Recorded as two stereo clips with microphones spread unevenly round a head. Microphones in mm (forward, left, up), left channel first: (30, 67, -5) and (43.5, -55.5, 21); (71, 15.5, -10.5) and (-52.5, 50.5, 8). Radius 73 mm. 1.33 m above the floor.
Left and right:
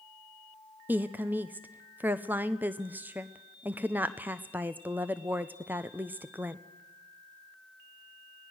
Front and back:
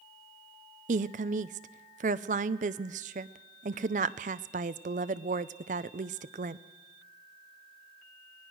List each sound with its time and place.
0.9 s a woman speaking: 170° right, 0.6 m